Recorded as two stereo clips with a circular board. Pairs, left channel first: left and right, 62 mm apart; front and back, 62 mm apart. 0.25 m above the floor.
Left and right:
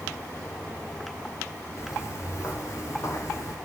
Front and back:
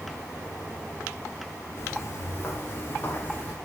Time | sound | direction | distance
1.8 | footsteps | 45° left | 4 m